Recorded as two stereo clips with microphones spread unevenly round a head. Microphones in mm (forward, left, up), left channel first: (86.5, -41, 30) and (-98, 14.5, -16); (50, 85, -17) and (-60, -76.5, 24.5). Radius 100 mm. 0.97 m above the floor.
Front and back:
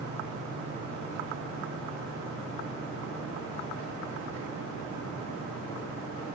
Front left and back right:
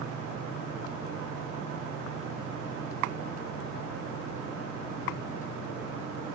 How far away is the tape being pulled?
I don't hear tape being pulled.